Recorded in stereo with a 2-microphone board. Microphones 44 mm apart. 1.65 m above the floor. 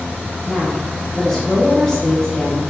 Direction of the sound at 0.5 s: 15° left (ahead or behind).